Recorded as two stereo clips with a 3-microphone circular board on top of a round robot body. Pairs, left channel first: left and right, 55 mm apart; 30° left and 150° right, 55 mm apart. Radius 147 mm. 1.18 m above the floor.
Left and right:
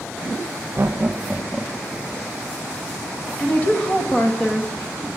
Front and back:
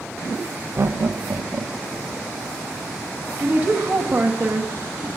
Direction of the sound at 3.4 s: 155° left.